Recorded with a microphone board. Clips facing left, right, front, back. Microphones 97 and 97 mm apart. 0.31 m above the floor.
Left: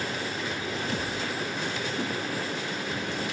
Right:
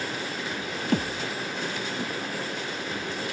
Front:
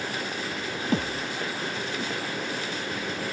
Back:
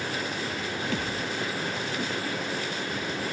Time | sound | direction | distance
0.9 | a thud | 55° right | ?